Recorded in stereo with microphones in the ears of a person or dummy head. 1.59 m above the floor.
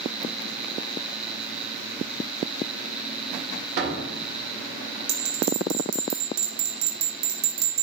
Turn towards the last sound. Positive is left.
turn(degrees=-60)  # may be behind; listen again after turning